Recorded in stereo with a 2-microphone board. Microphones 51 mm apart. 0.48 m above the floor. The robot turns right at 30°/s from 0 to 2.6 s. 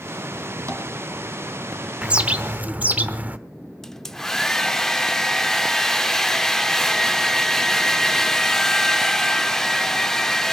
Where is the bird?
20° right (ahead or behind), 0.9 m; by 3.4 s 35° right (ahead or behind), 0.9 m.